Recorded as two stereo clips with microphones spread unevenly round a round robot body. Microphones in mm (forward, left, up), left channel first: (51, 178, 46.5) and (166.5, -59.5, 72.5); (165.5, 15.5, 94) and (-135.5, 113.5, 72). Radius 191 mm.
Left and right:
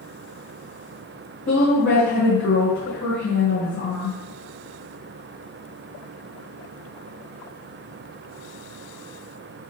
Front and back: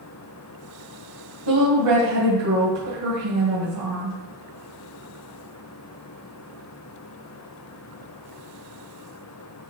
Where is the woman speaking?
175° left, 2.5 m.